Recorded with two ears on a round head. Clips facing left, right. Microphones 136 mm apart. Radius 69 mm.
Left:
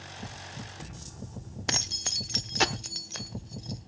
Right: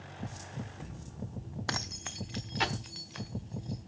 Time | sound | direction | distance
1.7 | keys jangling | 20° left (ahead or behind) | 0.5 m